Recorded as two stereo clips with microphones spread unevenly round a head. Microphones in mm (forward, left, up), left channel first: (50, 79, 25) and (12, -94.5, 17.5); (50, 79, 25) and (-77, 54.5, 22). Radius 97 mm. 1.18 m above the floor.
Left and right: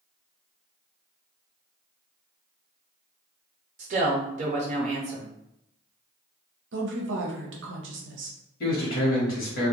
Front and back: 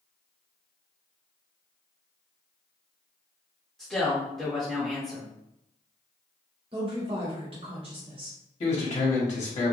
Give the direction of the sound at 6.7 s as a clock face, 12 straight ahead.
4 o'clock.